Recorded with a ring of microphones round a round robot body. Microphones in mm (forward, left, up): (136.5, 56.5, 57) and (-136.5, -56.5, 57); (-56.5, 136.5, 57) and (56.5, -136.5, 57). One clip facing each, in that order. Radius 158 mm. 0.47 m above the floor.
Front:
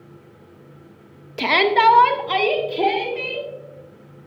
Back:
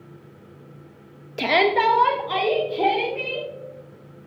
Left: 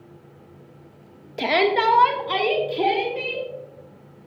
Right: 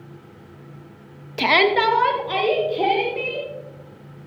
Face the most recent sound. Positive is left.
turn(degrees=65)